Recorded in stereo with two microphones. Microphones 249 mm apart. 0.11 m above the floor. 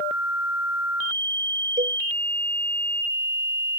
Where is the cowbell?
30° right (ahead or behind).